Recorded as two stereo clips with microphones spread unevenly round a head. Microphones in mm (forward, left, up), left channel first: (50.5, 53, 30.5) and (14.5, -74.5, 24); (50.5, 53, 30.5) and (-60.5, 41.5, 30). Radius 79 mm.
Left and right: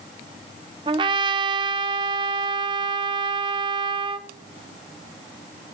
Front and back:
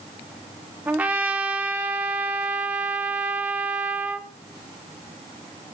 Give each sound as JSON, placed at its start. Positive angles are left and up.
{"t": 0.9, "sound": "a trumpet", "azimuth_deg": -110, "distance_m": 0.5}